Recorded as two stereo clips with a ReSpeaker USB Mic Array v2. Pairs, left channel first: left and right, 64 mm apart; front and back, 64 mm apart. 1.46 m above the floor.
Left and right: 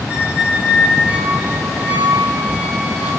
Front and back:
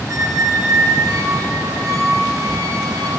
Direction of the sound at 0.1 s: 160° right.